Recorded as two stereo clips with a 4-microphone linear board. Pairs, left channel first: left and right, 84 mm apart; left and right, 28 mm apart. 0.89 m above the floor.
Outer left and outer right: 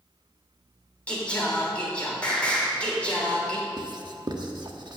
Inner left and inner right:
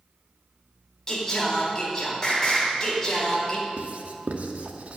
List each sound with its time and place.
1.1 s singing: 15° left (ahead or behind), 3.5 m
3.8 s writing: 55° right (ahead or behind), 1.2 m